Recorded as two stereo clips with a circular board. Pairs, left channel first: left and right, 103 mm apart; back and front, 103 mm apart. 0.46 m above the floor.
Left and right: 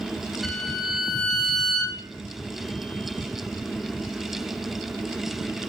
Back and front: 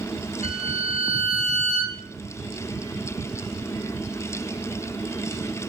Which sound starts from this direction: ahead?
A violin, at 0.4 s.